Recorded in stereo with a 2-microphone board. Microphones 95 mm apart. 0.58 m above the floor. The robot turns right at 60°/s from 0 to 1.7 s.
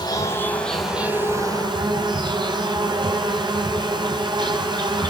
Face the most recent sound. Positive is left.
turn(degrees=-125)